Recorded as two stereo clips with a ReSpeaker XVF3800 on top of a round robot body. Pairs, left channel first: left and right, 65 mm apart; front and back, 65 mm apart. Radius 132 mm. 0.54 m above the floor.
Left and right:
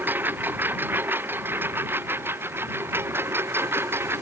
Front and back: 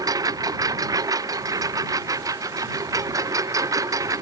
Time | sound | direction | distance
0.0 | a lawn mower | 155° right | ?